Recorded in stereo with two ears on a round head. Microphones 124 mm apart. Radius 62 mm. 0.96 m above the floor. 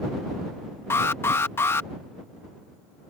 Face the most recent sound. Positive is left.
turn(degrees=15)  # may be behind; listen again after turning